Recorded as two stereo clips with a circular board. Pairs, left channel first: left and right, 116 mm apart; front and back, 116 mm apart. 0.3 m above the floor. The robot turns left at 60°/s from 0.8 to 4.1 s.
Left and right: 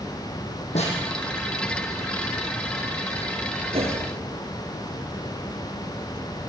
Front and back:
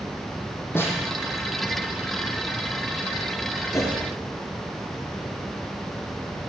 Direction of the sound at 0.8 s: 70° left.